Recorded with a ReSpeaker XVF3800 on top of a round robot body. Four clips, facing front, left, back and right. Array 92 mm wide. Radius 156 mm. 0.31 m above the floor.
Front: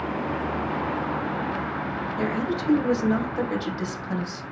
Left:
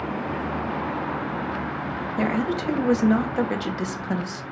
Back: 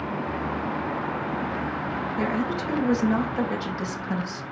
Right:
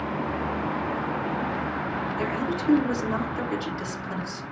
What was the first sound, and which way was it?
A woman speaking, 95° left.